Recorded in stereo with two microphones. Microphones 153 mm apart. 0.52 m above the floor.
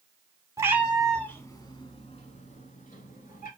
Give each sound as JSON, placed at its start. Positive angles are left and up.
{"t": 0.6, "sound": "a cat meowing", "side_deg": -20, "distance_m": 0.7}